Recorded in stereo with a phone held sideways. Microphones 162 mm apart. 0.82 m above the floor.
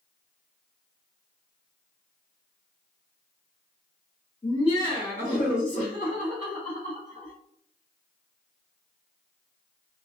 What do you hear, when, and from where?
4.4 s laughter: 25° left (ahead or behind), 1.5 m; by 7.3 s 65° left (ahead or behind), 2.5 m